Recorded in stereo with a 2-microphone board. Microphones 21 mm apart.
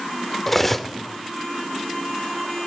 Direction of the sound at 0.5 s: 15° left (ahead or behind).